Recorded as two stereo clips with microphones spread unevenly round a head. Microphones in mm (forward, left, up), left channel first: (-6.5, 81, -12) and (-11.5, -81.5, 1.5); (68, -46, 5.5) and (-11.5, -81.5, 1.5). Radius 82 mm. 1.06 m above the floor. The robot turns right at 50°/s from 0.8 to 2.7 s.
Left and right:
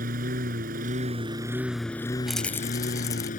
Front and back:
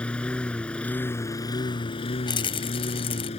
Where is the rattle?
5° right; by 3.3 s 15° left.